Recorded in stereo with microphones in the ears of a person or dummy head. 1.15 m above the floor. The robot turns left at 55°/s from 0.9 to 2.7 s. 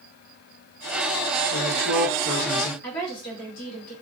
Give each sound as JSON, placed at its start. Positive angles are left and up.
{"t": 1.5, "sound": "a woman speaking", "azimuth_deg": 130, "distance_m": 1.5}
{"t": 2.8, "sound": "a woman speaking", "side_deg": 55, "distance_m": 1.8}